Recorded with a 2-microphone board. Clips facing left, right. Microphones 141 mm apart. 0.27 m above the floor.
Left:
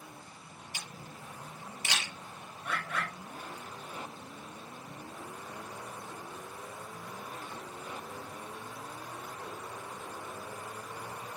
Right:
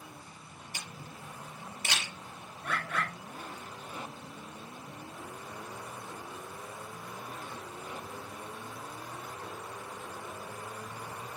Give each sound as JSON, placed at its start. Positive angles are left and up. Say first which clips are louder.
{"t": 0.7, "sound": "a camera shutter", "louder": "right 1 dB", "side_deg": -50, "distance_m": 5.0}
{"t": 2.6, "sound": "a bird", "louder": "right 2 dB", "side_deg": -65, "distance_m": 4.0}